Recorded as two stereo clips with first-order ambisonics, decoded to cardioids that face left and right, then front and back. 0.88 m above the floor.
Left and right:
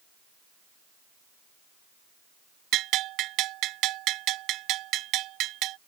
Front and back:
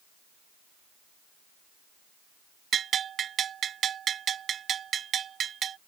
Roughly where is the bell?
Behind right.